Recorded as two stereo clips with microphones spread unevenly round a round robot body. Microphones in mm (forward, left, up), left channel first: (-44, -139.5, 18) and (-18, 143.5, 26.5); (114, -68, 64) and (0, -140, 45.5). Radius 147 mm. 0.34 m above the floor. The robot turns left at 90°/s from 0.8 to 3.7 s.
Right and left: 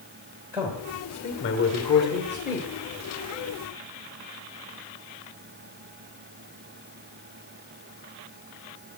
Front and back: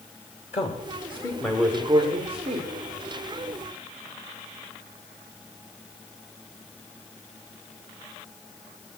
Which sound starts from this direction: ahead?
A man speaking, at 0.5 s.